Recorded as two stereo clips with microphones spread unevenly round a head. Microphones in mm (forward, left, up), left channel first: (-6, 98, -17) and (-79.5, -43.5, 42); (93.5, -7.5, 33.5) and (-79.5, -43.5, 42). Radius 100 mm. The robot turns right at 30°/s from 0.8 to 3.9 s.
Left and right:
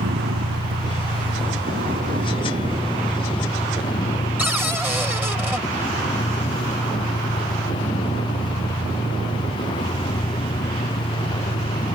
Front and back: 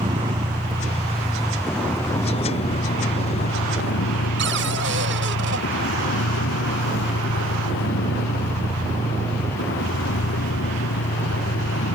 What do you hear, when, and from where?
0.0 s a vehicle: 105° right; by 11.9 s 5° right
4.4 s a cupboard door: 165° left